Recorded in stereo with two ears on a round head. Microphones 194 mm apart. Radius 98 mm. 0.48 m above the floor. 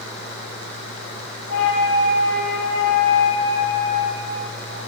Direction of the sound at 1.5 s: 85° left.